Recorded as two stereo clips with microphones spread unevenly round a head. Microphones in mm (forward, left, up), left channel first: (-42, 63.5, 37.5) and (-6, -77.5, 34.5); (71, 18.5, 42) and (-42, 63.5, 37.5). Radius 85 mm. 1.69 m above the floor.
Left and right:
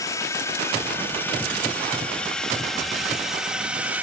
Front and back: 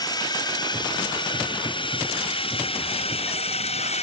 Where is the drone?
35° left; by 4.0 s 5° left.